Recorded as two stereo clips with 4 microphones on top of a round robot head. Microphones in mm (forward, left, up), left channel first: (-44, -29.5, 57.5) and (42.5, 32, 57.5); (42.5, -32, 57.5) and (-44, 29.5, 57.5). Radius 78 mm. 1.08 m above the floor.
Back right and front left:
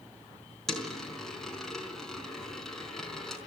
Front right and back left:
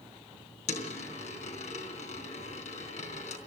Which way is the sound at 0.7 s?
60° right.